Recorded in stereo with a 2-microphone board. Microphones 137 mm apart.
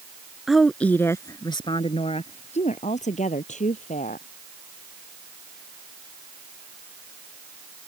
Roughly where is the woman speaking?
Centre.